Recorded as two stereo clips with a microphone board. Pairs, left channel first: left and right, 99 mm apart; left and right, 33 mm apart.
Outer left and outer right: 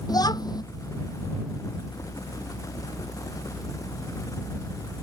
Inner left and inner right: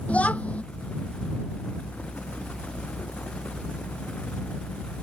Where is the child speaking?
40° left (ahead or behind).